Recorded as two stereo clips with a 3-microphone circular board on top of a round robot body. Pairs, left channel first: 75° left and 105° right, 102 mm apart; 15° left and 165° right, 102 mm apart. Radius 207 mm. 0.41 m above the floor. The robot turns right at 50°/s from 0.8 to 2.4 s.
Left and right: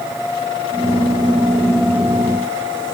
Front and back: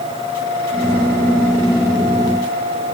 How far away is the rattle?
I don't hear a rattle.